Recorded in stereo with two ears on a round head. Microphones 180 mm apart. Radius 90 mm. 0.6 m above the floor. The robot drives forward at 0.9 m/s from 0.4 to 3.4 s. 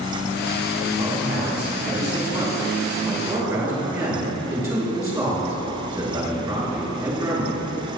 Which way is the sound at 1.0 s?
30° right (ahead or behind).